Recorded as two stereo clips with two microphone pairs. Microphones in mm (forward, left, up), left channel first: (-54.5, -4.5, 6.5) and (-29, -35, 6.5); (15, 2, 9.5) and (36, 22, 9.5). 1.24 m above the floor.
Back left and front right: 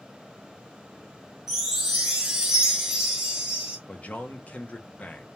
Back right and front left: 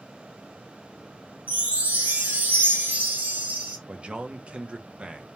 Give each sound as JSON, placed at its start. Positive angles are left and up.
{"t": 1.5, "sound": "a chime", "azimuth_deg": 35, "distance_m": 0.6}
{"t": 3.9, "sound": "a man speaking", "azimuth_deg": 85, "distance_m": 0.5}